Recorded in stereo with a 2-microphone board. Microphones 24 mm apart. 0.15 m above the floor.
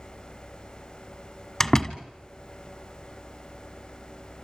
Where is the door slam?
20° left (ahead or behind), 1.5 m.